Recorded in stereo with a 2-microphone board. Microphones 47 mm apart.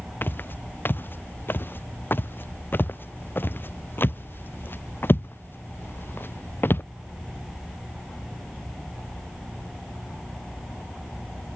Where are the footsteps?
50° left (ahead or behind); by 6.8 s 55° left (ahead or behind).